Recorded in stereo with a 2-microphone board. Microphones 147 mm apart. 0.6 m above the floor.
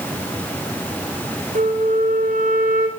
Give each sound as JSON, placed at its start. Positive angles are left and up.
{"t": 1.6, "sound": "a flute", "side_deg": -70, "distance_m": 1.4}